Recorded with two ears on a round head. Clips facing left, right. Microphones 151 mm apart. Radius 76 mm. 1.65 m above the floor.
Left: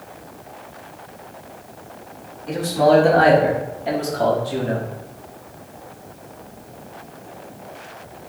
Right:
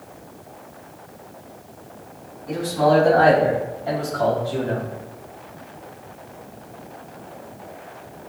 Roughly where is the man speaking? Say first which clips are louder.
Left 3 dB; left.